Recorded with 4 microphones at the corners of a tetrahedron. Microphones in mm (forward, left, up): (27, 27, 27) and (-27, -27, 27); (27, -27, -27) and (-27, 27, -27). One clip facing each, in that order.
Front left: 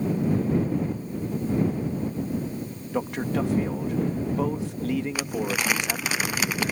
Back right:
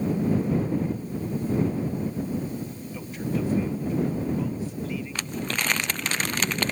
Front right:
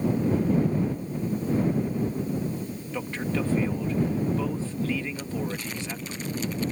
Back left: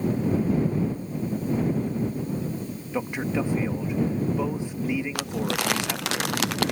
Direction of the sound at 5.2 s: 125° left.